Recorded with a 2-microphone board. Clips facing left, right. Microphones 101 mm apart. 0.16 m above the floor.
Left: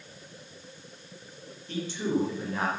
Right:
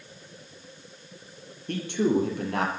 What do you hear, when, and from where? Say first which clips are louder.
1.7 s a man speaking: right 5 dB; 60° right (ahead or behind), 5 m; by 2.7 s 70° right (ahead or behind), 6 m